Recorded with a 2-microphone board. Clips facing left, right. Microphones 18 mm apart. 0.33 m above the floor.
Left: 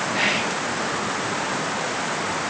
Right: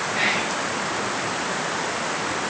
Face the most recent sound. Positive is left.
turn(degrees=25)  # may be behind; listen again after turning